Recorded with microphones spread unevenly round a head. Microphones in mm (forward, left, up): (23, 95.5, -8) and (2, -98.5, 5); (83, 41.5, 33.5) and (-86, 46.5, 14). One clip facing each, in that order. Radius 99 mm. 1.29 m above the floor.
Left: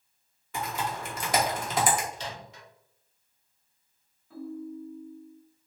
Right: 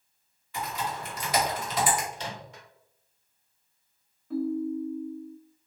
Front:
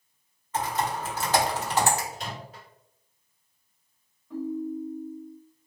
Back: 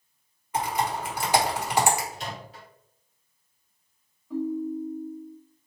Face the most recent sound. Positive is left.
turn(degrees=-95)